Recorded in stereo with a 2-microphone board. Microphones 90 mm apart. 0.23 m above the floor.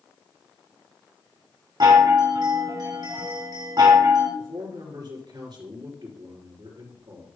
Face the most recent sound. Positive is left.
turn(degrees=-55)  # may be behind; listen again after turning